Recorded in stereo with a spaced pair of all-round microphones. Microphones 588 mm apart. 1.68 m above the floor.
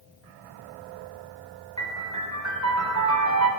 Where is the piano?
30° right (ahead or behind), 4 m.